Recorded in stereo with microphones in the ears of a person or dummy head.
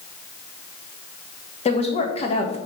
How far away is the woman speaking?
About 1.5 m.